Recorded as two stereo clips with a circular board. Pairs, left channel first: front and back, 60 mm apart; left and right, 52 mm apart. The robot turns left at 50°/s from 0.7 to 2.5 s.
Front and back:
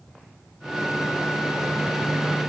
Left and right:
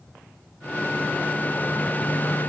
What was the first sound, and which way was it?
Only background noise.